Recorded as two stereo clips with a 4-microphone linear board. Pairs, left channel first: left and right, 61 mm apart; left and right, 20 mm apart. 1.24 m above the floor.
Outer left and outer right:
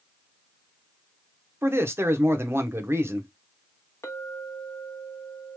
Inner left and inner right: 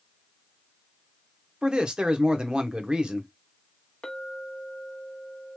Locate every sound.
1.6 s a man speaking: 45° right (ahead or behind), 0.8 m
4.0 s a clink: 60° left (ahead or behind), 0.9 m